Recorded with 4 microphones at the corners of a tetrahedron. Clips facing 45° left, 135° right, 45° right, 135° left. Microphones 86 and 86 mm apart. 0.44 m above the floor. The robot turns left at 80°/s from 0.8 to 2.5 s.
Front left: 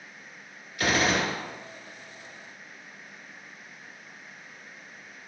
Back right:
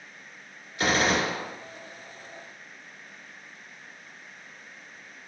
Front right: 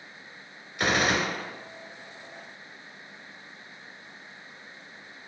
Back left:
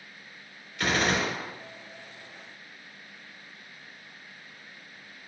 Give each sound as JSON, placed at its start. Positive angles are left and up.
{"t": 0.8, "sound": "a gunshot", "azimuth_deg": -100, "distance_m": 1.6}